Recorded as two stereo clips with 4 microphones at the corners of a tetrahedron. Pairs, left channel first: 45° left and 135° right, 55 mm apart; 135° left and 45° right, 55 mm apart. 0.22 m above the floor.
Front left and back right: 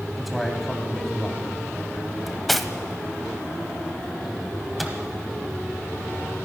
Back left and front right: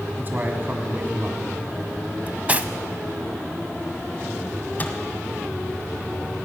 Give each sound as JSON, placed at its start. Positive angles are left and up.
{"t": 0.2, "sound": "a man speaking", "azimuth_deg": -45, "distance_m": 1.9}
{"t": 2.3, "sound": "cutlery clinking", "azimuth_deg": -40, "distance_m": 0.6}
{"t": 4.8, "sound": "a microwave", "azimuth_deg": 135, "distance_m": 1.3}